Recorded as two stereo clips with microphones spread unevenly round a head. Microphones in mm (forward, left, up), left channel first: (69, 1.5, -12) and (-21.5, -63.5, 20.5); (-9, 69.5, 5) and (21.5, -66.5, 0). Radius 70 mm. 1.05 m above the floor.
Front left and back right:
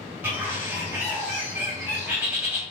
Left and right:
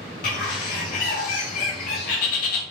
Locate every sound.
0.2 s a bird: 140° left, 3 m